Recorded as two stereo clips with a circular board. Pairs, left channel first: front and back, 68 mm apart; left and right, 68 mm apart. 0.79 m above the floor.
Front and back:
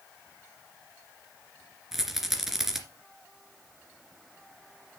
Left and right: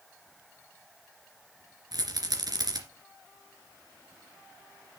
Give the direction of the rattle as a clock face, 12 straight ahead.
3 o'clock.